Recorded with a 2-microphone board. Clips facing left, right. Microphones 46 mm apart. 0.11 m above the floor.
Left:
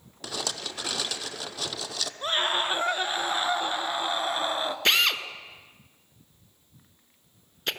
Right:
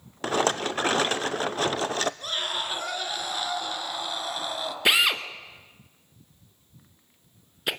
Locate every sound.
0.2 s a rattle: 40° right (ahead or behind), 0.6 m
2.2 s a scream: 30° left (ahead or behind), 1.5 m
4.8 s a drill: 10° right (ahead or behind), 1.2 m